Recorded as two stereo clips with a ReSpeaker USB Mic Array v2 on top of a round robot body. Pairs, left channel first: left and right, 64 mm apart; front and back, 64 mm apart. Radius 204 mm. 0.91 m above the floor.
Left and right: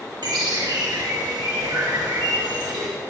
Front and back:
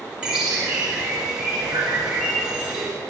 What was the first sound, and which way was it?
A bird, 100° right.